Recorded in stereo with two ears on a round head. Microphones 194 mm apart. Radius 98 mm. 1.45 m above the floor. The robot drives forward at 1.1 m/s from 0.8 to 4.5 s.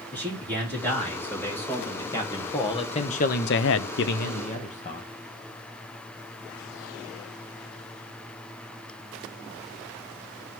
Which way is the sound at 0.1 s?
10° left (ahead or behind).